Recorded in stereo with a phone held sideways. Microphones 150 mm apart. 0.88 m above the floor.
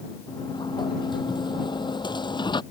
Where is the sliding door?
30° left (ahead or behind).